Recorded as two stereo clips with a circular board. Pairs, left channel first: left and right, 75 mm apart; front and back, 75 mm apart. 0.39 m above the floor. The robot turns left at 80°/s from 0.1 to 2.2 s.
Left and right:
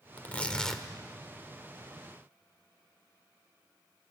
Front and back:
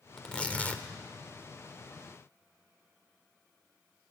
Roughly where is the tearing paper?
Ahead left.